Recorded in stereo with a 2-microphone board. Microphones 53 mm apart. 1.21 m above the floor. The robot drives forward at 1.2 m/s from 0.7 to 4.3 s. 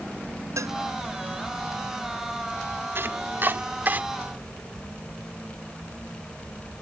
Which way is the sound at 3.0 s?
50° right (ahead or behind).